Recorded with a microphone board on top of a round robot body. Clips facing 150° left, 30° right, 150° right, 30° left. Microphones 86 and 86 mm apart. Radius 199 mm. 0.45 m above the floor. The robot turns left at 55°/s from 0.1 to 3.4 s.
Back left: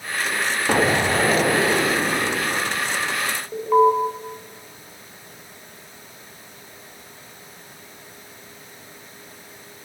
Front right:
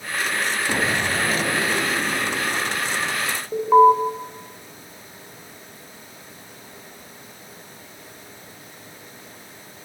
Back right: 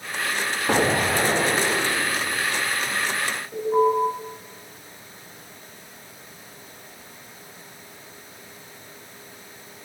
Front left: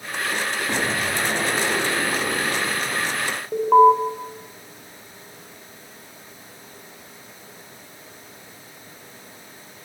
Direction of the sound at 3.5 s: 50° left.